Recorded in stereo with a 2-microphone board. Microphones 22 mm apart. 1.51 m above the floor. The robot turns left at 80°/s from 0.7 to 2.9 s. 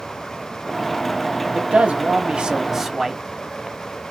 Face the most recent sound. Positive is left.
turn(degrees=-170)